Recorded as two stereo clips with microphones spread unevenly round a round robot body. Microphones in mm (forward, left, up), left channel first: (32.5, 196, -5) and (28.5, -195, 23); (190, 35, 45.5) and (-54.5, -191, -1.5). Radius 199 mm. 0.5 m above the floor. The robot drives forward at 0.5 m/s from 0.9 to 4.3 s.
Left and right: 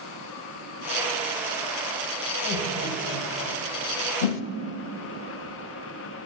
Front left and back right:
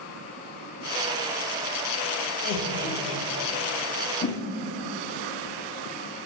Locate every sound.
2.4 s laughter: 50° left, 2 m; by 3.5 s 65° left, 1.8 m
4.2 s a whoosh: 105° left, 0.7 m; by 4.4 s 110° left, 0.7 m